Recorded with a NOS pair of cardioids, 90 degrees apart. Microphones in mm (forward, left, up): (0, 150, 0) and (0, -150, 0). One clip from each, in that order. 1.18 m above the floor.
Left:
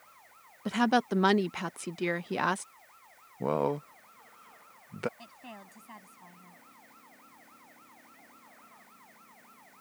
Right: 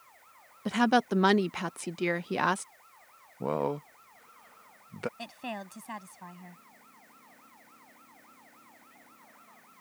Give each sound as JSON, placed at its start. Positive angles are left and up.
{"t": 0.7, "sound": "a woman speaking", "azimuth_deg": -10}
{"t": 3.4, "sound": "a man speaking", "azimuth_deg": 5}
{"t": 5.2, "sound": "a woman speaking", "azimuth_deg": -65}